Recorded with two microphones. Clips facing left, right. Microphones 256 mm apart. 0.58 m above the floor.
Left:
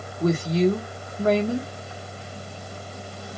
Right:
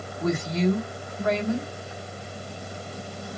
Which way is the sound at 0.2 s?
35° left (ahead or behind).